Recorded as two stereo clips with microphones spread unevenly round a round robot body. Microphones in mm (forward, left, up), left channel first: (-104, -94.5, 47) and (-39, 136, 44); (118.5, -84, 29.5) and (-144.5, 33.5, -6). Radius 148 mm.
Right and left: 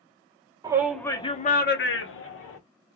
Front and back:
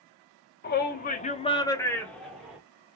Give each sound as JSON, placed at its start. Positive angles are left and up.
{"t": 0.6, "sound": "a shout", "azimuth_deg": 15, "distance_m": 0.8}